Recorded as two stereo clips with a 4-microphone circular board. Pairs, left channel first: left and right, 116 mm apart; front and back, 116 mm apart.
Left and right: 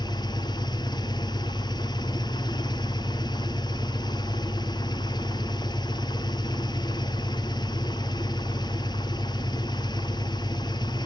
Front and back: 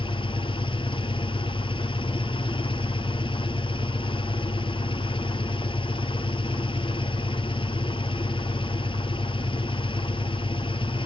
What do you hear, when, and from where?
0.0 s an engine running: 40° left, 1.2 m